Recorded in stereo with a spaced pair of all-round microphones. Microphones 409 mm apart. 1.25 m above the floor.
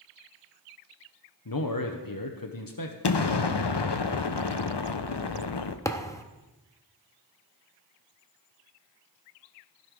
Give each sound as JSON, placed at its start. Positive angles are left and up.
{"t": 1.4, "sound": "a man speaking", "side_deg": 50, "distance_m": 0.8}
{"t": 3.0, "sound": "an explosion", "side_deg": 65, "distance_m": 0.6}
{"t": 5.8, "sound": "a thud", "side_deg": 5, "distance_m": 0.7}